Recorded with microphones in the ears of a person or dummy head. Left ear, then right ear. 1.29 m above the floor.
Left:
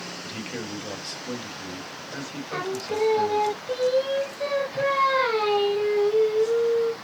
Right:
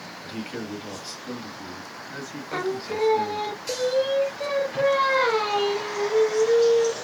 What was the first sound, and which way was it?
A man speaking, centre (ahead or behind).